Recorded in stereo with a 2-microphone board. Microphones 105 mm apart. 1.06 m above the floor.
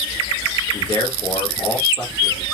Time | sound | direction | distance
0.7 | a man speaking | 30° left (ahead or behind) | 1.4 m